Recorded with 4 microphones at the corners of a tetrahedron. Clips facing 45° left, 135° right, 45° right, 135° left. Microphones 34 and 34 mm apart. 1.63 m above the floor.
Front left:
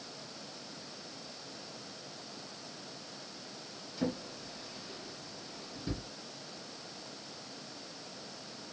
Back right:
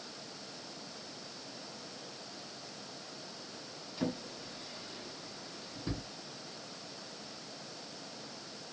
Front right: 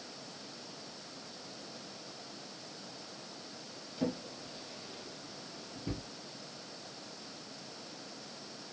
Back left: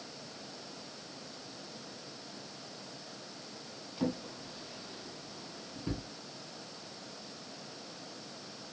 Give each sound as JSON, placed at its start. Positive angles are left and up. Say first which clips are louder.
{"t": 4.0, "sound": "a drawer", "louder": "front left 1 dB, back left 1 dB", "azimuth_deg": 170, "distance_m": 2.0}